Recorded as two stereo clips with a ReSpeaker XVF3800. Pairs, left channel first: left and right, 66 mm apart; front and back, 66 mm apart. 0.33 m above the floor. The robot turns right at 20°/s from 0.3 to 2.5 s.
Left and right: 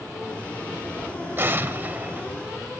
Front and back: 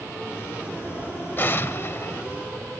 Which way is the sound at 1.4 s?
45° right.